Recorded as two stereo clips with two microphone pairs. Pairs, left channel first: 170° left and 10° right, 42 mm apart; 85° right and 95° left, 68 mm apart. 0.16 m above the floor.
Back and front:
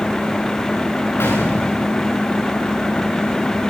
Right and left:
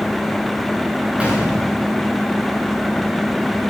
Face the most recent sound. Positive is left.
turn(degrees=170)